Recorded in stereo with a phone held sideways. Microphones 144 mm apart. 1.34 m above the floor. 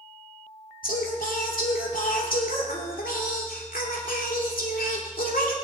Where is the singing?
80° left, 2.5 m.